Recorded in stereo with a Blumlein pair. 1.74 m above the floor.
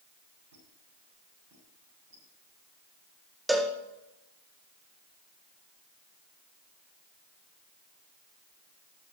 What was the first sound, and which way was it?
A squeak, 50° right.